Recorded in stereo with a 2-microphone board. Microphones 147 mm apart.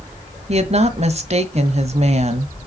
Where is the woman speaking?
45° right (ahead or behind), 1.4 m.